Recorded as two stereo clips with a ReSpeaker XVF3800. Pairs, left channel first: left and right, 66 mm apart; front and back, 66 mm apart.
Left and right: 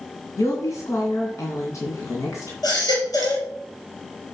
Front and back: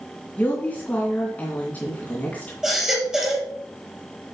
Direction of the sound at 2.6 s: 100° left.